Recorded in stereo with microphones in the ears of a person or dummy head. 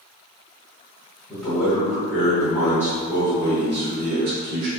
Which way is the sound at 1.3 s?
5° left (ahead or behind).